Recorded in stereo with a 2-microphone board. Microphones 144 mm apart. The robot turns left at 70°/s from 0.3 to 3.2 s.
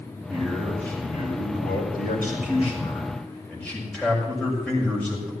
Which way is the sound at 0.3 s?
150° right.